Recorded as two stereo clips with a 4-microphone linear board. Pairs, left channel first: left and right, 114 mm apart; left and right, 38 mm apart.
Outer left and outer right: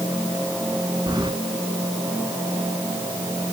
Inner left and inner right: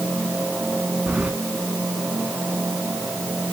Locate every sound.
1.1 s keys jangling: 40° right (ahead or behind), 1.4 m